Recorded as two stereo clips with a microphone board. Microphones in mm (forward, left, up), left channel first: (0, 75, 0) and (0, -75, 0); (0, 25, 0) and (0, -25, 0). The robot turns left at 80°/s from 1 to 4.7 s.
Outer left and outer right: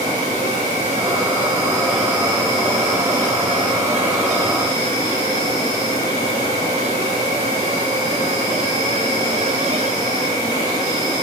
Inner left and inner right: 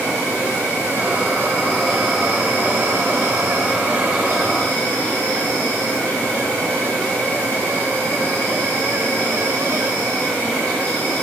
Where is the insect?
80° left, 1.8 m; by 11.2 s 145° left, 1.8 m.